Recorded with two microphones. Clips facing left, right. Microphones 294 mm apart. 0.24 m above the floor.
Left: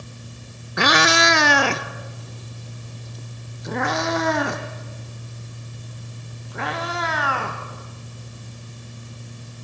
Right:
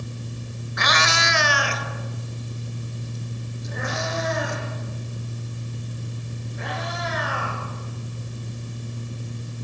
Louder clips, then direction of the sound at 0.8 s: Left 9 dB; 70° left (ahead or behind).